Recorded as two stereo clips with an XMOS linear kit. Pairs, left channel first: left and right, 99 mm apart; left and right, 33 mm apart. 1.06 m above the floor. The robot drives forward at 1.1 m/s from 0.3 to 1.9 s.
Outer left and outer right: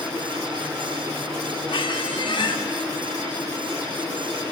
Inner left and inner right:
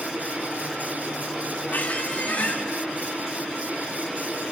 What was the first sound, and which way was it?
A squeak, 60° left (ahead or behind).